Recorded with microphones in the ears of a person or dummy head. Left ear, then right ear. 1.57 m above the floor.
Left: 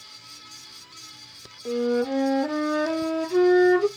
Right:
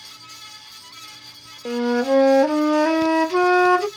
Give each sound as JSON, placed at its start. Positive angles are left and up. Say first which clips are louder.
{"t": 1.6, "sound": "a flute", "louder": "right 4 dB", "side_deg": -60, "distance_m": 0.8}